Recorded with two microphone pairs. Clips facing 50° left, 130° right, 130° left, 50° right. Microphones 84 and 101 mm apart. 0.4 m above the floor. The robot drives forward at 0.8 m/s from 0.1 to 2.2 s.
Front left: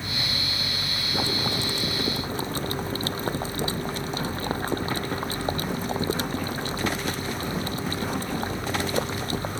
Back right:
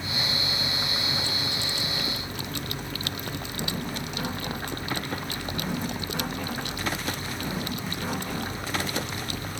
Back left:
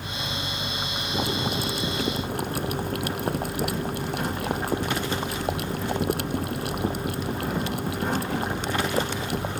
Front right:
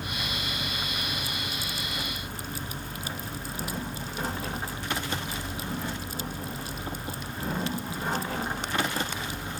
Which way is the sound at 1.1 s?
100° left.